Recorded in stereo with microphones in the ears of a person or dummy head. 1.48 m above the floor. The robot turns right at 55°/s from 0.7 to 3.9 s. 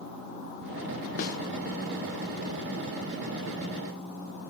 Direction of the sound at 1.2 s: 35° left (ahead or behind).